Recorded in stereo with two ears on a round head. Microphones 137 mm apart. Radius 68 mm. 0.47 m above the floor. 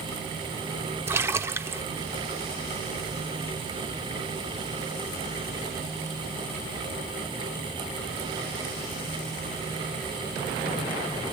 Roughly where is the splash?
Centre.